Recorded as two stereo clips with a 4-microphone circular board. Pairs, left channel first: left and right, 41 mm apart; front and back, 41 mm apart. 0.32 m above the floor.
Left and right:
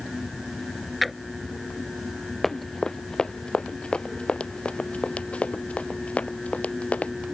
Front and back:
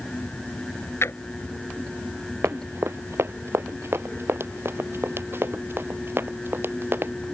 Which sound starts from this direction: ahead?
A drawer, at 1.0 s.